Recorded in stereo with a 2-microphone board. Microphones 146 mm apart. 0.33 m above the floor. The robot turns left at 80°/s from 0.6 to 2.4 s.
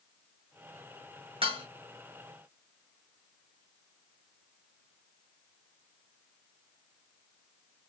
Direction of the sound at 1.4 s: 40° right (ahead or behind).